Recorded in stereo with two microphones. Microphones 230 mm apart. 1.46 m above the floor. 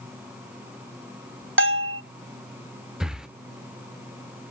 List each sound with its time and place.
1.6 s a bell: 60° right (ahead or behind), 0.5 m
3.0 s breathing: 5° right (ahead or behind), 0.7 m